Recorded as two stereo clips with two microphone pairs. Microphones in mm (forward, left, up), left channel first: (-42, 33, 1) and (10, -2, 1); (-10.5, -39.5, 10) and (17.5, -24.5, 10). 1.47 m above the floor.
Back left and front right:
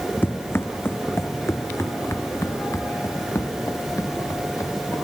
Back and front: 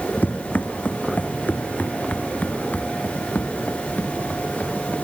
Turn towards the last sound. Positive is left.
turn(degrees=180)